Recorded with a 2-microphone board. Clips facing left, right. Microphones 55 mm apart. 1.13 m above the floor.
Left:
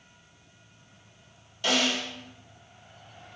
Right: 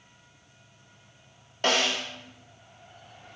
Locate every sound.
1.6 s a snare drum: 45° right (ahead or behind), 0.6 m